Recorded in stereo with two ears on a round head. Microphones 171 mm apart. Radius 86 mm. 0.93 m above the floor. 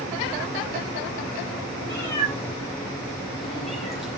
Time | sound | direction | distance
1.9 | a cat meowing | 15° left (ahead or behind) | 8 m